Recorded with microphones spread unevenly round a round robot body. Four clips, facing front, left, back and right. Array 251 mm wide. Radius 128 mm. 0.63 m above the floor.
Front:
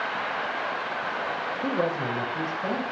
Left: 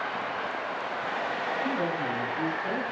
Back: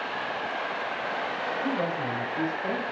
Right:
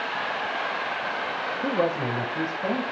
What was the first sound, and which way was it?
A woman speaking, 60° right.